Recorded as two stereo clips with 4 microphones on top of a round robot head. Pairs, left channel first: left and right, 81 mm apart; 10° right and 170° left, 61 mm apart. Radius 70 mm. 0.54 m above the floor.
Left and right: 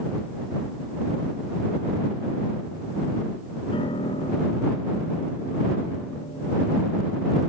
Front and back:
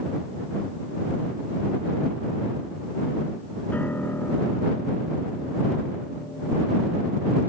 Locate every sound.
3.7 s a piano: 55° left